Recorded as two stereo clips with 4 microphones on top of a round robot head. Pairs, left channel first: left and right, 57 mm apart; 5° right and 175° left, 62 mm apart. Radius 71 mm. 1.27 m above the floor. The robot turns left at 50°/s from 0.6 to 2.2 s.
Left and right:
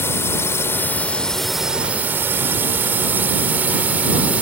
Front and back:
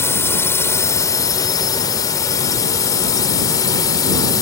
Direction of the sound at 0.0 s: 40° left.